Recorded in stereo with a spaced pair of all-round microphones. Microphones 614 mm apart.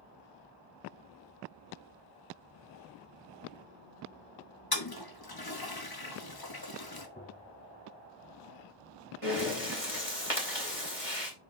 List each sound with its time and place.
4.7 s a toilet flushing: 35° left (ahead or behind), 1.1 m
7.2 s tapping: 15° left (ahead or behind), 0.8 m
9.2 s breathing: 60° left (ahead or behind), 2.5 m